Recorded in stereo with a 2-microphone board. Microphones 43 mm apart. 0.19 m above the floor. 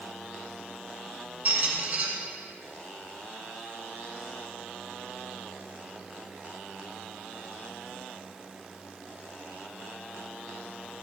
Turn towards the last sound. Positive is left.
turn(degrees=-40)  # may be behind; listen again after turning